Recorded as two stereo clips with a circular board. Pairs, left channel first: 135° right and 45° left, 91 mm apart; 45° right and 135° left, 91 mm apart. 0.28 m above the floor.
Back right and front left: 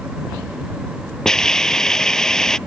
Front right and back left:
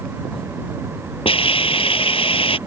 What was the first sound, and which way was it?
A hiss, 50° right.